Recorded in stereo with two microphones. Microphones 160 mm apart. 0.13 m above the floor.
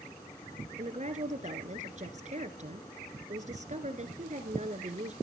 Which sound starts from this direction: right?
A woman speaking, at 0.8 s.